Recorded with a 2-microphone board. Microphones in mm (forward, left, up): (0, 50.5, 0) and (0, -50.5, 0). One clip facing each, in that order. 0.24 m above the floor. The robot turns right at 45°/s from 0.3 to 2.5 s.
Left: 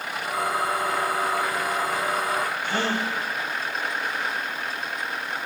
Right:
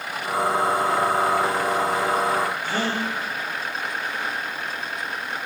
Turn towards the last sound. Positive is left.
turn(degrees=-15)  # may be behind; listen again after turning